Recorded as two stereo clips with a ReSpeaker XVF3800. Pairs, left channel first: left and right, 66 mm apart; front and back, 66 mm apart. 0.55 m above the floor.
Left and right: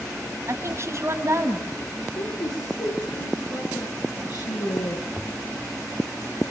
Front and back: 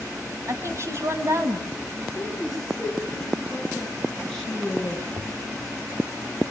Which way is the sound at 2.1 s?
80° left.